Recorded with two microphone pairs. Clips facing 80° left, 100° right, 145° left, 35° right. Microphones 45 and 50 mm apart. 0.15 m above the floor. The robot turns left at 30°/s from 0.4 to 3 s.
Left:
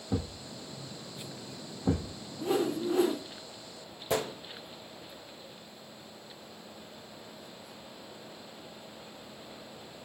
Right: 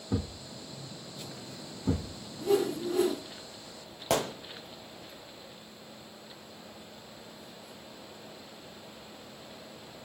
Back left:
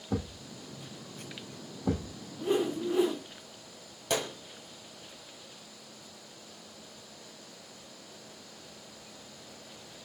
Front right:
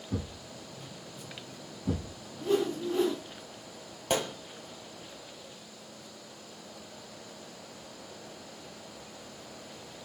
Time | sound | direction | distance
0.1 | a thud | 170° left | 0.9 m
2.4 | a whoosh | 95° left | 1.0 m
4.1 | a gunshot | 90° right | 1.0 m